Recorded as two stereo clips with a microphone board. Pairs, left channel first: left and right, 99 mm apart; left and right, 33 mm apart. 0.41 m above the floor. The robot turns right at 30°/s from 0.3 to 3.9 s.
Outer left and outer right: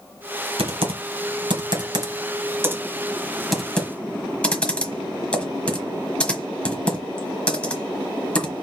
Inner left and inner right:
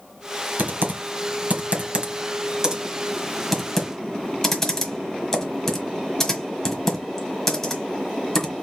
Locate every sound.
0.6 s typing on a keyboard: 75° right (ahead or behind), 1.3 m; by 8.6 s 10° left (ahead or behind), 1.3 m